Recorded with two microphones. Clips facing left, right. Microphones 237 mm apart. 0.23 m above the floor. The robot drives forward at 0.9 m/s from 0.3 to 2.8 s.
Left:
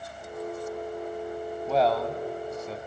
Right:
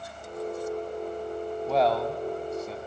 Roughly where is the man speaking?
Centre.